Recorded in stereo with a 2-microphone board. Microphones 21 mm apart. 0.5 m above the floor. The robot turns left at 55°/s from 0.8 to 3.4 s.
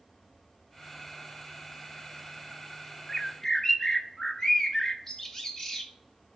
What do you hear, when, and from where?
3.1 s a bird: 20° left (ahead or behind), 0.8 m